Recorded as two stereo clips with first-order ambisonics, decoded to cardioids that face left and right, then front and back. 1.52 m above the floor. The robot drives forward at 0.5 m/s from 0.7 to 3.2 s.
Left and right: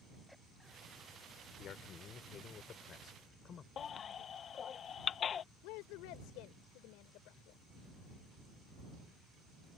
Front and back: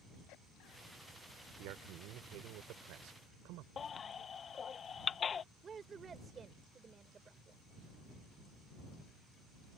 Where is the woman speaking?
110° left.